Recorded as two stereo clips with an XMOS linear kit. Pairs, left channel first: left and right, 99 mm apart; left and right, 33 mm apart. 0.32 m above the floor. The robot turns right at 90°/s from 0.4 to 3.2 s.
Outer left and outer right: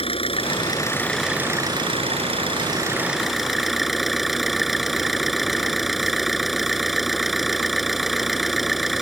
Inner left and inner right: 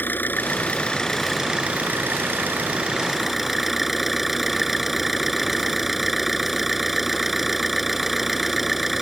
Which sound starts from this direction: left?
An engine running, at 0.0 s.